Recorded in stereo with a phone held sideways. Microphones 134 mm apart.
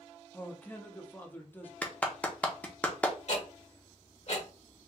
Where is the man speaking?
15° left (ahead or behind), 0.7 m.